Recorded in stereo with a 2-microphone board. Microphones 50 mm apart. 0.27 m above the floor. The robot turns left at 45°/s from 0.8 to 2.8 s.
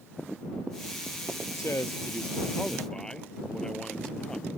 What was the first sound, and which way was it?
A man speaking, 70° left.